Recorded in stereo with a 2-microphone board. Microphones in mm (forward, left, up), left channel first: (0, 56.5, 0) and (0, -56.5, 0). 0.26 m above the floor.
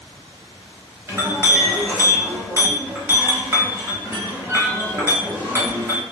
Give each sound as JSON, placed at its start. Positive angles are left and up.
{"t": 1.1, "sound": "a clink", "side_deg": -25, "distance_m": 0.9}